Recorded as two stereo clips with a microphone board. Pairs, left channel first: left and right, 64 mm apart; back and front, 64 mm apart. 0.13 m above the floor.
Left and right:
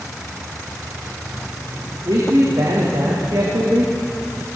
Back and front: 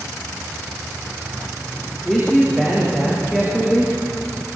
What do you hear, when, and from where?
2.0 s a man speaking: 80° right, 8.5 m